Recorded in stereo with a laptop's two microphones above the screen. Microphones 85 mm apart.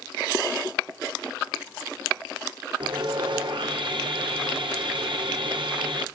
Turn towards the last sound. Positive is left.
turn(degrees=-65)  # may be behind; listen again after turning